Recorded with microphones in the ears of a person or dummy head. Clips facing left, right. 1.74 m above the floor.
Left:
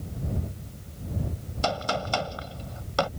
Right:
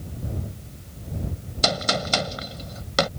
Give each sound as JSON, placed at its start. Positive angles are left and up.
{"t": 1.6, "sound": "a gunshot", "side_deg": -25}